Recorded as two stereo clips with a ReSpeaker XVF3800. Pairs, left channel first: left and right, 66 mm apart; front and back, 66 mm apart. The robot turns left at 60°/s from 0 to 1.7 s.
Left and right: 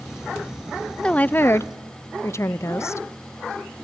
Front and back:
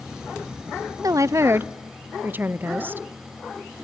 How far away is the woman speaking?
About 0.6 m.